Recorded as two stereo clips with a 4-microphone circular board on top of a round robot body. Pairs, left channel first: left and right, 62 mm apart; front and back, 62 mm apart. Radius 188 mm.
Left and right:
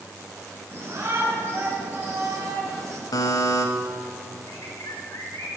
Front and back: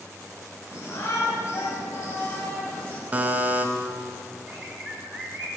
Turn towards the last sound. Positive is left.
turn(degrees=140)